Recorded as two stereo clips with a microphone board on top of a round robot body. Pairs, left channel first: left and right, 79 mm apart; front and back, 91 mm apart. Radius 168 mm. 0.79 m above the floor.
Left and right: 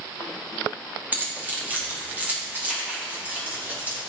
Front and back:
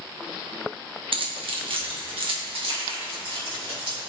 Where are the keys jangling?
160° right, 1.5 m.